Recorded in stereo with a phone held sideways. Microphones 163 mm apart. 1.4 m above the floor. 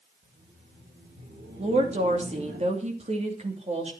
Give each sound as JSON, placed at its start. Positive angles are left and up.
{"t": 0.2, "sound": "laughter", "side_deg": -80, "distance_m": 6.5}
{"t": 1.6, "sound": "a woman speaking", "side_deg": -45, "distance_m": 3.0}